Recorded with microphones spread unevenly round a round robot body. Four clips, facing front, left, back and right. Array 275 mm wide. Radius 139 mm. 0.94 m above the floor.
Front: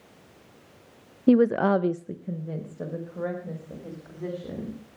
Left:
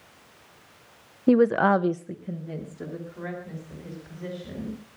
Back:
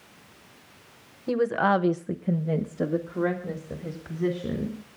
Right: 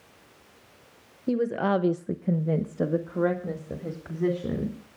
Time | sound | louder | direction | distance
1.3 | a woman speaking | left 6 dB, front 4 dB | 45° left | 1.0 m